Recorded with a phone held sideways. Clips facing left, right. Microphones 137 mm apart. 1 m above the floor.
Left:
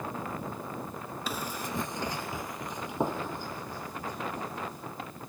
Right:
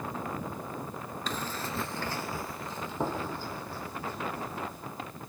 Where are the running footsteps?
10° left (ahead or behind), 1.0 m; by 4.8 s 15° left (ahead or behind), 4.5 m.